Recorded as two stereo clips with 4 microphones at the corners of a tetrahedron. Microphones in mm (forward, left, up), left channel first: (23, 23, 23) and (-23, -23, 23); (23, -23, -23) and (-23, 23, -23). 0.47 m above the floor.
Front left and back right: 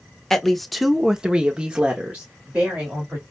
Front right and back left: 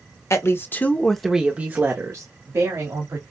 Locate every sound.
0.3 s a woman speaking: 40° right, 1.0 m; by 3.2 s 155° left, 1.9 m